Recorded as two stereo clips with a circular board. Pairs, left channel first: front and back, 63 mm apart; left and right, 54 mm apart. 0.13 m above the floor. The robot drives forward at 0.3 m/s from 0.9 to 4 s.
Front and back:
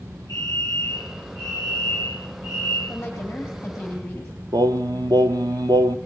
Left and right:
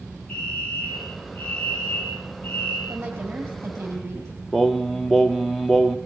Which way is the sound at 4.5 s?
175° right.